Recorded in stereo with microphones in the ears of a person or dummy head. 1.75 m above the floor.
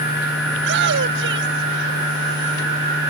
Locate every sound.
0.5 s a shout: 65° right (ahead or behind)